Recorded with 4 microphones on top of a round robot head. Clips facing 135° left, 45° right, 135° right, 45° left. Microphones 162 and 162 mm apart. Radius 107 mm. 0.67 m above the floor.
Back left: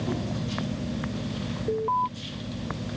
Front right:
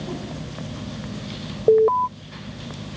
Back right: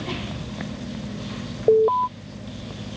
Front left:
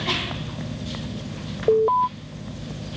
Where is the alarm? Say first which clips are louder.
Front right 13 dB, back right 2 dB; 60° right.